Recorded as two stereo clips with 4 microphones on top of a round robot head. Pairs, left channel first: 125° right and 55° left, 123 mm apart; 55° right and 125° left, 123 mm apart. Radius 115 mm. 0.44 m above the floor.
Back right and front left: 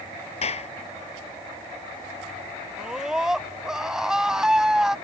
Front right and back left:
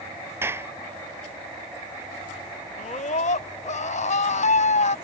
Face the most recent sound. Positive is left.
turn(degrees=-30)